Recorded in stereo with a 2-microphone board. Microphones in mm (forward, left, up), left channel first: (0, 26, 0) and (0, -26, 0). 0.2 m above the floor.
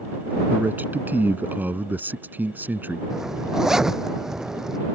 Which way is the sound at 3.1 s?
10° right (ahead or behind).